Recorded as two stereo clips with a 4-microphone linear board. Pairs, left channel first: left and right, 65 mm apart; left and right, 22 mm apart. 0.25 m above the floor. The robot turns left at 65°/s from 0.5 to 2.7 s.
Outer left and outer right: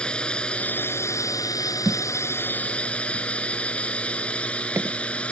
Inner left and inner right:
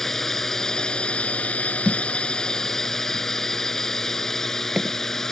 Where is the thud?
70° right (ahead or behind); by 5.0 s 45° right (ahead or behind).